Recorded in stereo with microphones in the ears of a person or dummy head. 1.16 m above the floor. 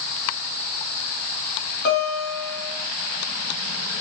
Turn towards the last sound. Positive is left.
turn(degrees=45)  # may be behind; listen again after turning